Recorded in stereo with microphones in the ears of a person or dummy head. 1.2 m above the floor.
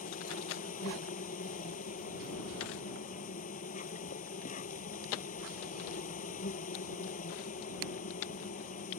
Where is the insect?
45° left (ahead or behind).